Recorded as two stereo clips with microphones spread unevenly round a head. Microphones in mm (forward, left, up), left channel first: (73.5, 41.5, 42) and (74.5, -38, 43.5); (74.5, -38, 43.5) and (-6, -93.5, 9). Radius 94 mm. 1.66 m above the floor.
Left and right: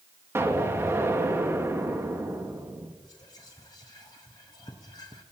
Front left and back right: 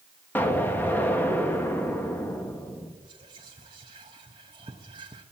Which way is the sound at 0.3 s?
30° right.